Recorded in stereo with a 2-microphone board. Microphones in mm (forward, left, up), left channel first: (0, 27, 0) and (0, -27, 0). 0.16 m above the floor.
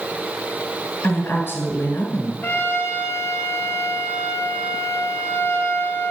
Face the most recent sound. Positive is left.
turn(degrees=45)  # may be behind; listen again after turning